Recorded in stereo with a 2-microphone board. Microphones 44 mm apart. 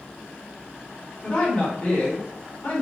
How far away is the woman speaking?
About 1.9 m.